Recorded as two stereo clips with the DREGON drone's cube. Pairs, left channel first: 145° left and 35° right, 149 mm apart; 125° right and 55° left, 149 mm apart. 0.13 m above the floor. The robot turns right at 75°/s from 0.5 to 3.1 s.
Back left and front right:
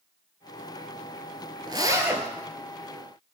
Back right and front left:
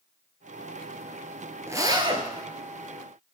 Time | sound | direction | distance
1.7 | a zipper | 5° right | 0.6 m